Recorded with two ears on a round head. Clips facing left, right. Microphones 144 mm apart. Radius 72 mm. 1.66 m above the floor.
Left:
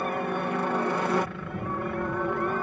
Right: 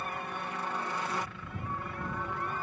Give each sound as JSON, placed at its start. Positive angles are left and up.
{"t": 0.0, "sound": "a helicopter", "side_deg": 50}